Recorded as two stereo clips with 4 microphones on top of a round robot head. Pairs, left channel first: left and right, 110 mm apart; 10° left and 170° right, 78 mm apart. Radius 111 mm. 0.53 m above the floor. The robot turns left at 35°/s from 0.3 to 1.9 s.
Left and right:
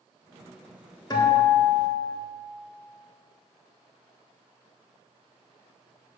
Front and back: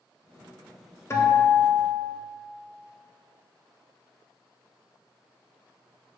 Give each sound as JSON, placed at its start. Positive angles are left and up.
{"t": 1.1, "sound": "a guitar", "azimuth_deg": 50, "distance_m": 1.7}